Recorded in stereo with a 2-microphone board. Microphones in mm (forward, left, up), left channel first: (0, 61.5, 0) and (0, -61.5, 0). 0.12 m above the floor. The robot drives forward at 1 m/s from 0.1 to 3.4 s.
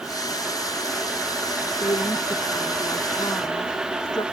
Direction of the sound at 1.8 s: 40° left (ahead or behind).